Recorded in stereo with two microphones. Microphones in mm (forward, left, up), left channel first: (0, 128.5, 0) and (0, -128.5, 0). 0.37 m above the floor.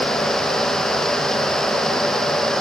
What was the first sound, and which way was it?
Only background noise.